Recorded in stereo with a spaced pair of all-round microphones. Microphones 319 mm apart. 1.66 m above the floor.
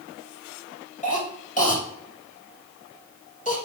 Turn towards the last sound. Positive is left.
turn(degrees=25)  # may be behind; listen again after turning